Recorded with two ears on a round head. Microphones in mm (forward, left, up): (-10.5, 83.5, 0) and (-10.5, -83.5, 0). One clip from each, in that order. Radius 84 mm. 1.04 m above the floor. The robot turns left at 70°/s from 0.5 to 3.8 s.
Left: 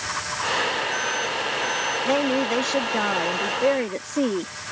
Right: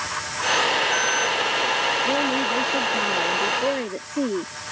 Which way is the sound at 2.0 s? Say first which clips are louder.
Even; 155° left.